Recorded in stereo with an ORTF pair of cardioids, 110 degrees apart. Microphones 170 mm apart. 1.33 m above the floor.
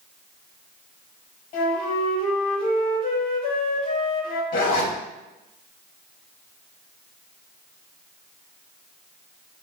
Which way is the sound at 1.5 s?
65° left.